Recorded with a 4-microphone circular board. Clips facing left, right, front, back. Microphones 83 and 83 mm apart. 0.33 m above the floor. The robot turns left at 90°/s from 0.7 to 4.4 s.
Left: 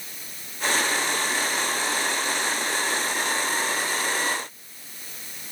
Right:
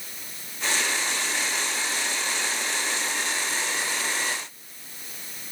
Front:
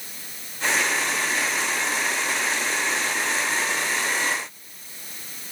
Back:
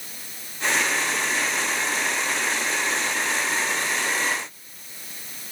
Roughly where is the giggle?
No giggle in this recording.